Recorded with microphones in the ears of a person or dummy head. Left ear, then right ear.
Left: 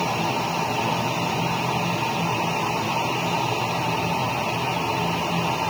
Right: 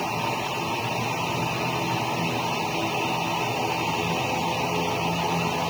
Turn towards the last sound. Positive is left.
No sound to turn to.